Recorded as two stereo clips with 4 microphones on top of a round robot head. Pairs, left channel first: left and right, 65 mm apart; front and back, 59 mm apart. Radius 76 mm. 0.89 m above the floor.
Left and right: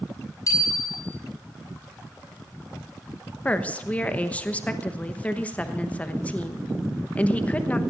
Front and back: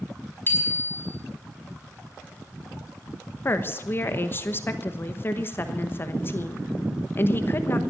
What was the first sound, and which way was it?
A bicycle bell, 55° left.